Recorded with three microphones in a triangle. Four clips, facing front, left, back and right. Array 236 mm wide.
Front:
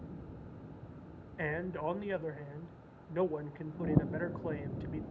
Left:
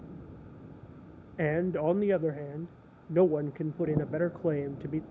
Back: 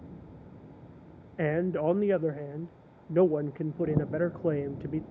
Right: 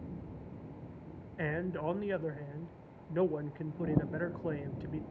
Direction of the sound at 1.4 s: 145° left.